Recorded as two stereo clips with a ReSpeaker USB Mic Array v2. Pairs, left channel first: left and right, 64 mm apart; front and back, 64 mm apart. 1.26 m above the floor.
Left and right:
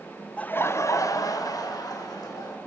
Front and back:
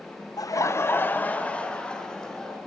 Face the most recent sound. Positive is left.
turn(degrees=80)